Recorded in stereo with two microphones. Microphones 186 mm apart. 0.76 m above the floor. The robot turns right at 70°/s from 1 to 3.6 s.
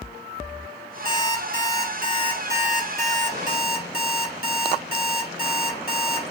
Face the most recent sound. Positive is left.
turn(degrees=60)